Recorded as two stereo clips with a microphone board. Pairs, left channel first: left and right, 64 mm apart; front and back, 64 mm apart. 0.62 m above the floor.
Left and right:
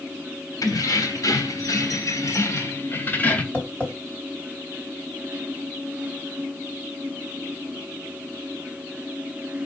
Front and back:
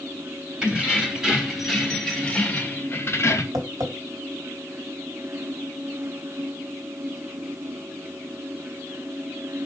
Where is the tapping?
160° left, 2 m.